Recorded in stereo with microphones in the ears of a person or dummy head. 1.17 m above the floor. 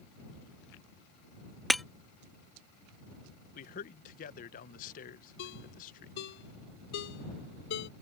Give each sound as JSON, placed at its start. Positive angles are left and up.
{"t": 1.7, "sound": "breaking glass", "side_deg": 5}
{"t": 3.5, "sound": "a man speaking", "side_deg": 45}
{"t": 5.4, "sound": "a ringtone", "side_deg": 65}